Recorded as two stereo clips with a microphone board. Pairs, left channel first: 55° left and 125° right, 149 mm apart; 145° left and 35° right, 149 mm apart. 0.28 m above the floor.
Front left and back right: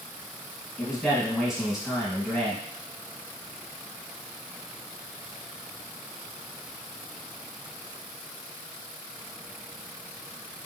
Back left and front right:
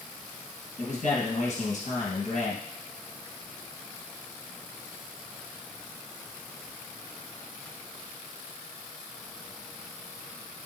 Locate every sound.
0.8 s a man speaking: 150° left, 2.5 m